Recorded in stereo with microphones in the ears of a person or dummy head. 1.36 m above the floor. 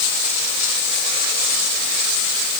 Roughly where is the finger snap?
I don't hear a finger snap.